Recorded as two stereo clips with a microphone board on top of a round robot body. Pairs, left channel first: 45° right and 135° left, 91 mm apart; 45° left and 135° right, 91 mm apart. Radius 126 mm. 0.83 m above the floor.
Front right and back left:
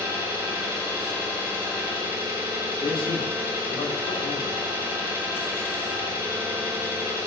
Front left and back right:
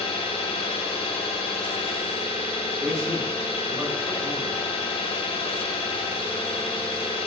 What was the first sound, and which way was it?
An engine running, 70° left.